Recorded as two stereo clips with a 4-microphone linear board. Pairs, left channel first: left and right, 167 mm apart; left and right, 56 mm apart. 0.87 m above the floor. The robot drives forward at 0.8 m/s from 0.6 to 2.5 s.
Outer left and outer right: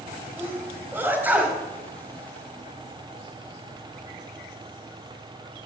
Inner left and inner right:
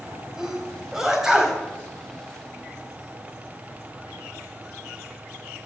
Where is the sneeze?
15° right (ahead or behind), 3.5 m; by 1.6 s 10° right (ahead or behind), 4 m.